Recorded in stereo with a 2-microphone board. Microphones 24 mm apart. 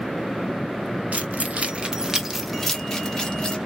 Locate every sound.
1.1 s keys jangling: 75° right (ahead or behind), 1.2 m; by 3.6 s 20° left (ahead or behind), 2 m